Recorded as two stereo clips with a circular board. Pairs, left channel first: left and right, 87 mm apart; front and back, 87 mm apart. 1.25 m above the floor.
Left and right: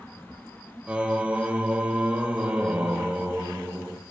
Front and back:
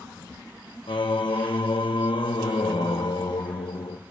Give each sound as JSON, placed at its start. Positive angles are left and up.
{"t": 0.9, "sound": "singing", "azimuth_deg": -15, "distance_m": 0.9}